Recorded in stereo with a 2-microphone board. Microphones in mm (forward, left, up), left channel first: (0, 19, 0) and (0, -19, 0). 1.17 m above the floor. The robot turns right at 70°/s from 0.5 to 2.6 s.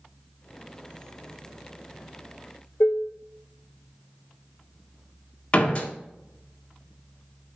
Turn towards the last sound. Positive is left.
turn(degrees=35)  # may be behind; listen again after turning